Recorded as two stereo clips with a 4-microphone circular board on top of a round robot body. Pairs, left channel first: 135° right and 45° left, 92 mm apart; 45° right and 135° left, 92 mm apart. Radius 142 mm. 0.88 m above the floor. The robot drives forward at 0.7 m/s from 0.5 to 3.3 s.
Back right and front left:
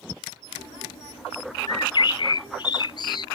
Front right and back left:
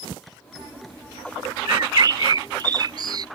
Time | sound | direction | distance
1.7 | a bird | 175° right | ?